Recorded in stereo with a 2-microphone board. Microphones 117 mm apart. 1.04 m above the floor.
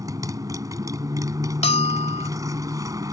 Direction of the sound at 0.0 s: 30° right (ahead or behind).